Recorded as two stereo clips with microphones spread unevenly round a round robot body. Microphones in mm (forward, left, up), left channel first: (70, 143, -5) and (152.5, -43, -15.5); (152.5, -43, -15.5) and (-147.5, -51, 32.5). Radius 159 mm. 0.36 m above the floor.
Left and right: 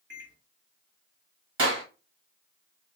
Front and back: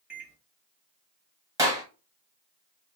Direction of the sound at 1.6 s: 95° right.